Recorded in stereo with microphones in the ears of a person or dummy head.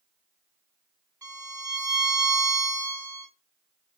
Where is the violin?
5° right (ahead or behind), 1.5 m.